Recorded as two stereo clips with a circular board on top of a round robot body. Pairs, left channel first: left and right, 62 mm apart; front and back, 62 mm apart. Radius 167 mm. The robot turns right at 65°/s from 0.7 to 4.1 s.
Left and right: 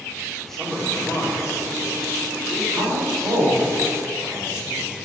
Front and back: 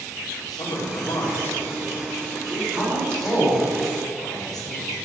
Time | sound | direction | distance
0.4 | a man speaking | 5° left | 3 m
2.7 | a woman speaking | 110° right | 4 m